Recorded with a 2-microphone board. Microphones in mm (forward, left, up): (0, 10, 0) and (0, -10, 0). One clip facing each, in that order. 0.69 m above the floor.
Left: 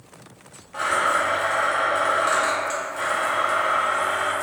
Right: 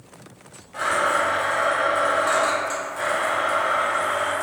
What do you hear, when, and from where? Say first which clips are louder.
0.7 s a blender: even; 15° left (ahead or behind), 0.8 m